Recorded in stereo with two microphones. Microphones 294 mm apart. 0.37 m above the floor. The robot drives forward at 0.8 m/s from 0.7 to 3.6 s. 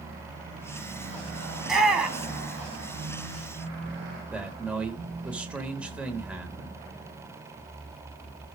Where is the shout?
Centre (ahead or behind), 3 m.